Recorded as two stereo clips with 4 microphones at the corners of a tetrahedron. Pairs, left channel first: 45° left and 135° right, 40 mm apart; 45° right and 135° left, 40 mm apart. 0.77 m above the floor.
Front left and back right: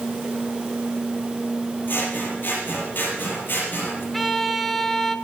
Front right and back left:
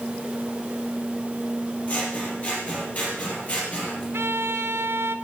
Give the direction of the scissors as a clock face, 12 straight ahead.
12 o'clock.